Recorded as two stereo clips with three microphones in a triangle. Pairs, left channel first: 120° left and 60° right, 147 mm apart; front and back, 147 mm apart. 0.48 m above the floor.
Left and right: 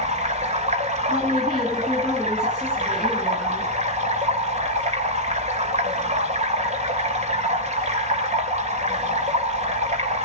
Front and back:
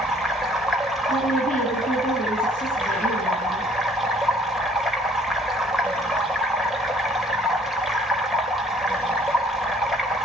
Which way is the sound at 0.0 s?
90° right.